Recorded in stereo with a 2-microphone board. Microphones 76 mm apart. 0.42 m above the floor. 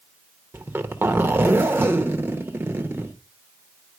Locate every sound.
0.5 s a zipper: 30° right (ahead or behind), 1.0 m